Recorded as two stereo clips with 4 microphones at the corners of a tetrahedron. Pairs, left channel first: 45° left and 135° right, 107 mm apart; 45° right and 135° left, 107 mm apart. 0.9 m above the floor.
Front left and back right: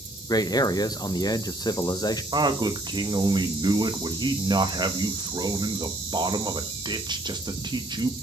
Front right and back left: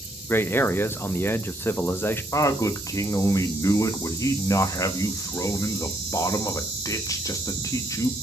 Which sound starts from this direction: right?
A man speaking, at 2.3 s.